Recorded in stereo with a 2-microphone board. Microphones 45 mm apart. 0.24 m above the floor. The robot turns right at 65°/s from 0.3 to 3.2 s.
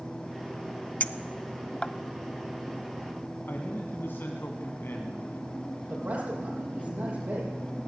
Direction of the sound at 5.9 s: 40° right (ahead or behind).